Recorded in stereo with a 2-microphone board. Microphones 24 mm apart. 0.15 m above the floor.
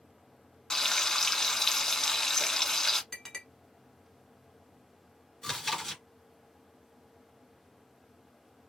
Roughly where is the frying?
Centre.